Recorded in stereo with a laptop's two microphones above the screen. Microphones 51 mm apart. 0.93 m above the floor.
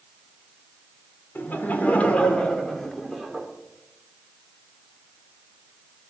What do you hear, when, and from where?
1.4 s laughter: 40° left (ahead or behind), 3.5 m; by 3.5 s 5° right (ahead or behind), 3.5 m